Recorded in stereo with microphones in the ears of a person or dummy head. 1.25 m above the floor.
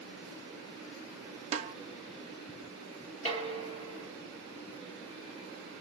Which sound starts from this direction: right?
A snare drum, at 1.5 s.